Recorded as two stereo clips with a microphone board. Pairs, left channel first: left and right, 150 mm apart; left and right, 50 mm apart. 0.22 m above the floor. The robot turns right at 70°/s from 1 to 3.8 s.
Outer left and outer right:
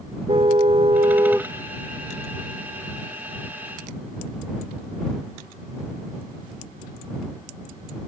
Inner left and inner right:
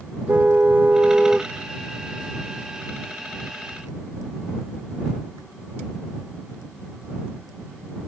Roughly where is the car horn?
Ahead right.